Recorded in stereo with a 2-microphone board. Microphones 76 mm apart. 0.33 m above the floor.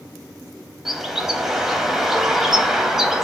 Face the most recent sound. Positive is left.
turn(degrees=-5)  # may be behind; listen again after turning